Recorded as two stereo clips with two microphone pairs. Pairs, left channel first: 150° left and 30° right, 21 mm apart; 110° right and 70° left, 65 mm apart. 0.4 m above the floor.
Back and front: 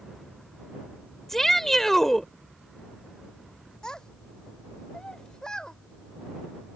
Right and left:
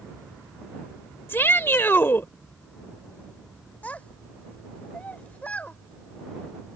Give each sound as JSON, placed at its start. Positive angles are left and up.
{"t": 1.3, "sound": "a shout", "azimuth_deg": -140}
{"t": 3.8, "sound": "a child speaking", "azimuth_deg": -170}